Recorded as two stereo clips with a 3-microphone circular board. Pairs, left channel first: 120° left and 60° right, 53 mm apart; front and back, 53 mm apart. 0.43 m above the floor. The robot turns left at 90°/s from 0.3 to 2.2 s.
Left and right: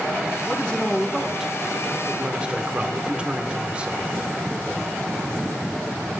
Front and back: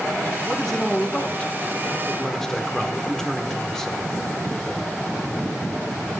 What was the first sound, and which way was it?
A man speaking, 95° left.